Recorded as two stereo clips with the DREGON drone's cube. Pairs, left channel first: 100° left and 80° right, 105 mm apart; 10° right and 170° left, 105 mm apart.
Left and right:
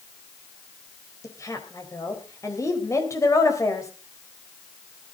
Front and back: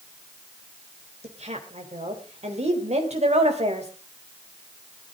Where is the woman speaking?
160° left, 4 m.